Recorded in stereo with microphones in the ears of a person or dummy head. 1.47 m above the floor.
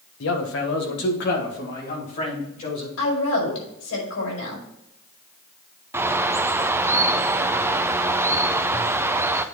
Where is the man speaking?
80° left, 1.2 m; by 2.9 s 45° left (ahead or behind), 3 m.